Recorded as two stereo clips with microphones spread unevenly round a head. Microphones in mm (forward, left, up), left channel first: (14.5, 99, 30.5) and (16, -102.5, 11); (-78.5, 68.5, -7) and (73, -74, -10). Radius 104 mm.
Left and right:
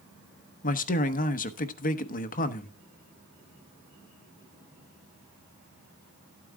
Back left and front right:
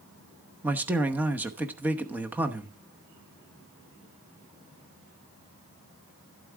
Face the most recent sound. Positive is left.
turn(degrees=40)